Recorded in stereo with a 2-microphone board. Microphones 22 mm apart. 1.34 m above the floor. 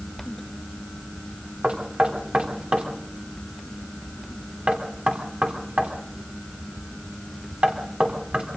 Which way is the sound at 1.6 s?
70° right (ahead or behind).